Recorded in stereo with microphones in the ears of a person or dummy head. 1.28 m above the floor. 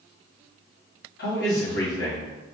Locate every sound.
1.2 s a man speaking: 55° left (ahead or behind), 1.3 m